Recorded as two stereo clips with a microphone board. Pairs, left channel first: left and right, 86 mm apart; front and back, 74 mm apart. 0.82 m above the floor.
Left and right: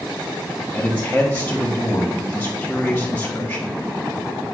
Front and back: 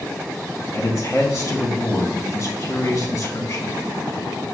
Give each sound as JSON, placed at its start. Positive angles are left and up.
{"t": 0.7, "sound": "a man speaking", "azimuth_deg": 25, "distance_m": 1.2}